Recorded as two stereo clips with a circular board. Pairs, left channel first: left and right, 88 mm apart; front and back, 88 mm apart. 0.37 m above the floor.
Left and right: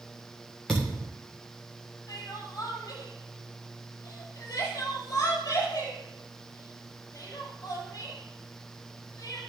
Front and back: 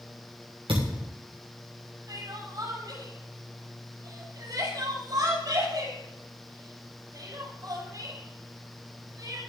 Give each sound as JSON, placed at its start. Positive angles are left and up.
{"t": 0.7, "sound": "a thud", "azimuth_deg": 175, "distance_m": 6.0}
{"t": 2.1, "sound": "crying", "azimuth_deg": 140, "distance_m": 6.5}